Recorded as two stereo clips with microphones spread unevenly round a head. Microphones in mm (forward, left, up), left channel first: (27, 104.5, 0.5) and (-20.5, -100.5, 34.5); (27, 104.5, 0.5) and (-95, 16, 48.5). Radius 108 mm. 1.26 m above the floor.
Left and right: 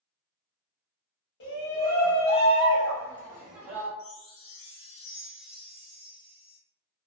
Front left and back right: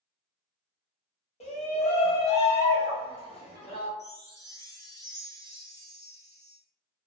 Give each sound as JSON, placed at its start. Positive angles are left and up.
{"t": 1.4, "sound": "a shout", "azimuth_deg": 60, "distance_m": 1.1}
{"t": 4.0, "sound": "a chime", "azimuth_deg": 105, "distance_m": 0.8}